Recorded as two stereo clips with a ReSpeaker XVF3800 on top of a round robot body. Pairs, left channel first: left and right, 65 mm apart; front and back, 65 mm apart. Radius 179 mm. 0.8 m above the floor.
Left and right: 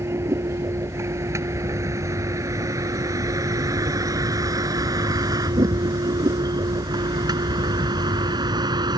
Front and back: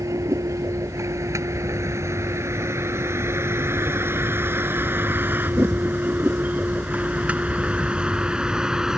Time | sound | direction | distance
0.0 | a vehicle | 140° right | ?